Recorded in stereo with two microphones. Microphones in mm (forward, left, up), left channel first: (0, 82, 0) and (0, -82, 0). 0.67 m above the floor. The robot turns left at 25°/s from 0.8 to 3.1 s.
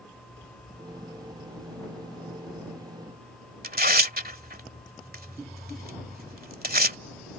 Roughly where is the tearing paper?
Right.